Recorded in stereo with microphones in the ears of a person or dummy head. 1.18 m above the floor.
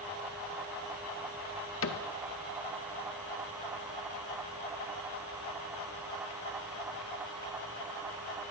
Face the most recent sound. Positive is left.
turn(degrees=65)  # may be behind; listen again after turning